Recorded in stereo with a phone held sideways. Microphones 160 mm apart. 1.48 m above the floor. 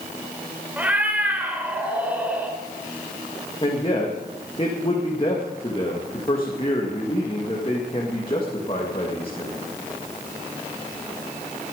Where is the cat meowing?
10° right (ahead or behind), 2.5 m.